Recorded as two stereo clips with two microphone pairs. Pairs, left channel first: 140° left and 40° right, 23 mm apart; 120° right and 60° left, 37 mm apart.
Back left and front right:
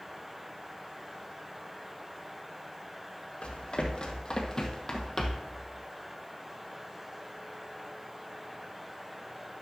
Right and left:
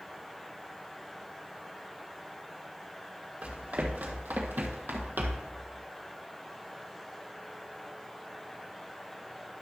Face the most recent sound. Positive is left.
turn(degrees=55)